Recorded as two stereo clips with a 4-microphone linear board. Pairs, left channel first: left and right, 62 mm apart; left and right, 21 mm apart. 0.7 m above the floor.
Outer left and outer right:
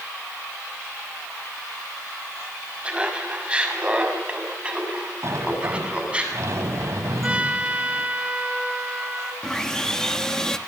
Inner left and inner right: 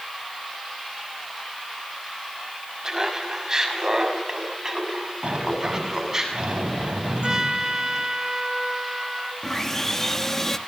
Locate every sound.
2.8 s laughter: 20° right (ahead or behind), 5.5 m
5.2 s a sliding door: 50° right (ahead or behind), 3.5 m
7.2 s a trumpet: 20° right (ahead or behind), 1.8 m
9.4 s sawing: 10° left (ahead or behind), 1.4 m